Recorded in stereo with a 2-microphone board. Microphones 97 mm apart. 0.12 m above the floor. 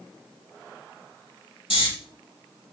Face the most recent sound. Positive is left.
turn(degrees=65)  # may be behind; listen again after turning